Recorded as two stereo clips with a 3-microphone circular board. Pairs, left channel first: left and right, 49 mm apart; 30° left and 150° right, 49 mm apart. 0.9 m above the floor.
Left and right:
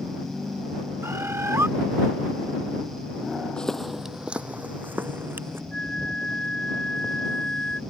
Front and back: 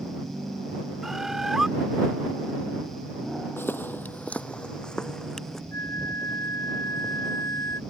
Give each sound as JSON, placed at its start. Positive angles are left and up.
{"t": 1.0, "sound": "a bird", "azimuth_deg": -70}
{"t": 3.6, "sound": "footsteps", "azimuth_deg": 25}
{"t": 5.7, "sound": "a flute", "azimuth_deg": 20}